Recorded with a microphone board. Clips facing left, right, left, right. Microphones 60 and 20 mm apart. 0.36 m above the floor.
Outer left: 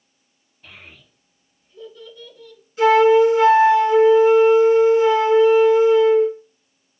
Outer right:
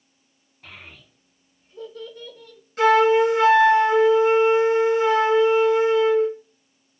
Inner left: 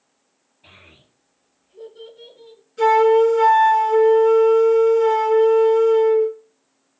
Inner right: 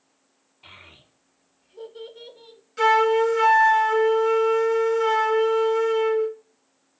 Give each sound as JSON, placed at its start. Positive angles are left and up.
{"t": 0.6, "sound": "a child speaking", "side_deg": -75, "distance_m": 1.5}
{"t": 2.8, "sound": "a flute", "side_deg": -70, "distance_m": 1.2}